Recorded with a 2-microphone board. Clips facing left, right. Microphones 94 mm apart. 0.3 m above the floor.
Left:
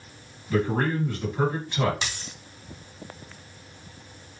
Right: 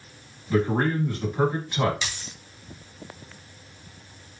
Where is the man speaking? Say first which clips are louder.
Right 2 dB; 10° right (ahead or behind), 1.5 m.